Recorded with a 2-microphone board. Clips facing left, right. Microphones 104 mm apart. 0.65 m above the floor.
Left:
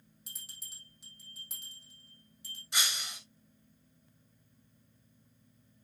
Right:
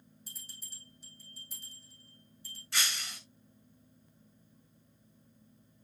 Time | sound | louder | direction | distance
0.3 | a bell | left 2 dB | 80° left | 4.5 m
2.7 | breaking glass | even | 20° left (ahead or behind) | 2 m